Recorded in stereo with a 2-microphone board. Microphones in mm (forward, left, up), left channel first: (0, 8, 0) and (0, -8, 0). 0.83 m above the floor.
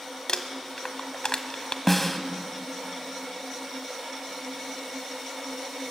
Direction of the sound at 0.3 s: 50° left (ahead or behind).